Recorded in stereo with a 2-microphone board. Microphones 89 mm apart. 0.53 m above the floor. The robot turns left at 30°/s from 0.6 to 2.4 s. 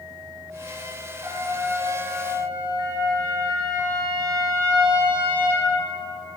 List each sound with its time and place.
1.2 s a trumpet: 35° right, 0.9 m; by 5.7 s 70° right, 0.9 m